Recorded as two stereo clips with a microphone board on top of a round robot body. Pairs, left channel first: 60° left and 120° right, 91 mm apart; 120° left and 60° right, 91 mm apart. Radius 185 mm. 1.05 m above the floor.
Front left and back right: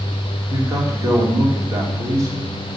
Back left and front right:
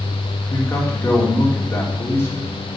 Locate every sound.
0.5 s a man speaking: 175° right, 3.5 m